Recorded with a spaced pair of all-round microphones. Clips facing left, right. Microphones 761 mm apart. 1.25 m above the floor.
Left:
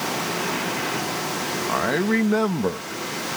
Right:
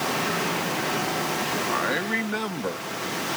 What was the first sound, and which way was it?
A man speaking, 70° left (ahead or behind).